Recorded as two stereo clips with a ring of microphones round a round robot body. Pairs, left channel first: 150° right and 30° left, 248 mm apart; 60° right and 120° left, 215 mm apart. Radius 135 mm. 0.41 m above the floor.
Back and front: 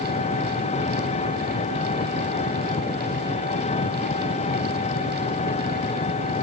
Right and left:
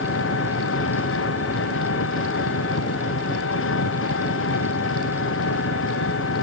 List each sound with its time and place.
0.0 s an engine running: 85° right